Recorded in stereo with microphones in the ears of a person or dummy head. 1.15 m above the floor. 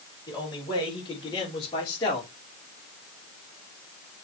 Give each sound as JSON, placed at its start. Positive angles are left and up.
{"t": 0.3, "sound": "a man speaking", "side_deg": 20, "distance_m": 4.5}